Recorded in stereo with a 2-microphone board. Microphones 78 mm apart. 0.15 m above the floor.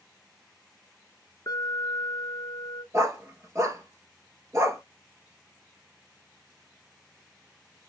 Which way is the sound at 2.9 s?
35° right (ahead or behind).